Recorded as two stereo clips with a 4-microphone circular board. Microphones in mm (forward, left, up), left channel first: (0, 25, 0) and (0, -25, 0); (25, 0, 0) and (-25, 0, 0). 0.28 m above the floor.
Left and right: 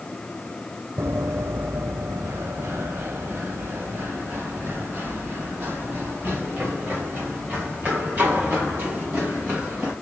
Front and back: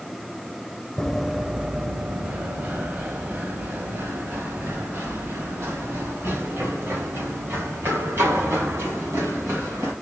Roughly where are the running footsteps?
Right.